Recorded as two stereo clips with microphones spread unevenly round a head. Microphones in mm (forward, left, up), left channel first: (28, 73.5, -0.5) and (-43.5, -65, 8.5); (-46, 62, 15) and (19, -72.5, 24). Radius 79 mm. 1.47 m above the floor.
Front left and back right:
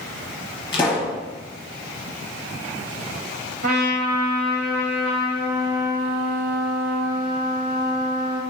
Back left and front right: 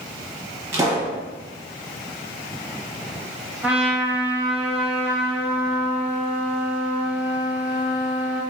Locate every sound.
0.7 s a pop: 5° left, 1.0 m
3.6 s a trumpet: 140° right, 1.0 m